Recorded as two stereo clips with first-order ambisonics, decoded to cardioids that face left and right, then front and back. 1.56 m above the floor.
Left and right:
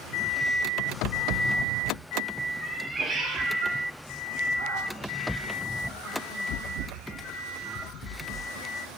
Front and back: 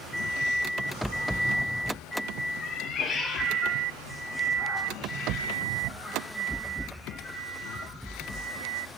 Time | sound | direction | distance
2.6 | a cat meowing | 40° left | 0.8 m